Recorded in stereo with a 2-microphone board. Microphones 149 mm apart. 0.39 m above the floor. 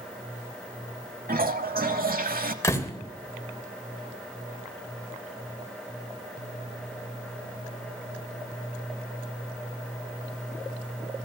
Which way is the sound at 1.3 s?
80° right.